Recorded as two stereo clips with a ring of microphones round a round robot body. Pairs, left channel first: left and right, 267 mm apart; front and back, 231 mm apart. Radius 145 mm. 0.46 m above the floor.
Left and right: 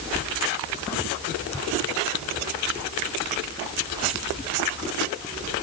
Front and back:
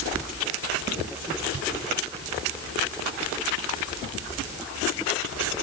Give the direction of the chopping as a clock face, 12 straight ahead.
I don't hear chopping.